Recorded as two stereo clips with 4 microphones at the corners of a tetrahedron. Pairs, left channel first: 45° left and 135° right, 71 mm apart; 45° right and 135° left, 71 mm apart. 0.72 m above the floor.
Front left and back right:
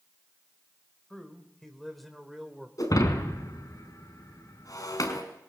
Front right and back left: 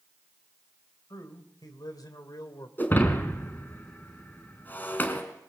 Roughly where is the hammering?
No hammering in this recording.